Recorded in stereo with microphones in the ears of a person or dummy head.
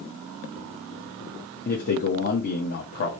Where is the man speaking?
50° left (ahead or behind), 1.0 m.